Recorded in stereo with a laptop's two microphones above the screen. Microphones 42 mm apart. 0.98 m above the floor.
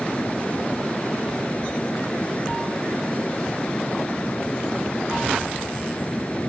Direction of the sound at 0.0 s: 30° left (ahead or behind).